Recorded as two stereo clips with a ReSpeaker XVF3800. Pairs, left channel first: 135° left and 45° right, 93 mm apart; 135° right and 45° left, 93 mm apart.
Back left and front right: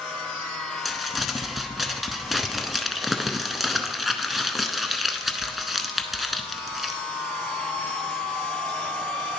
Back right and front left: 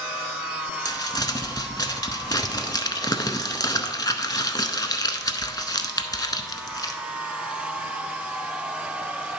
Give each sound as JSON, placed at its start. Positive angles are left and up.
{"t": 0.8, "sound": "crumpling", "azimuth_deg": -135, "distance_m": 0.6}